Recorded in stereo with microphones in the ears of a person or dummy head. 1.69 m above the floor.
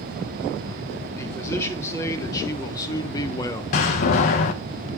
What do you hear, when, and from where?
1.2 s a man speaking: 15° left (ahead or behind), 3 m; by 3.6 s 20° left (ahead or behind), 1.4 m
3.7 s a door slam: 45° left (ahead or behind), 1.0 m